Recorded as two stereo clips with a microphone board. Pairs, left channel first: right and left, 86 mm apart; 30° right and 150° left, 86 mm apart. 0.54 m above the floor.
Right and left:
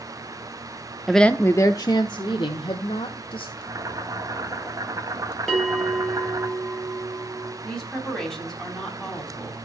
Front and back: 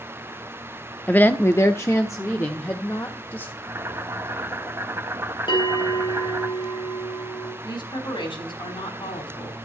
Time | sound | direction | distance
1.1 | a woman speaking | straight ahead | 0.6 m
3.6 | boiling | 105° left | 1.6 m
5.5 | a bell | 5° right | 4 m
7.6 | a woman speaking | 5° right | 4 m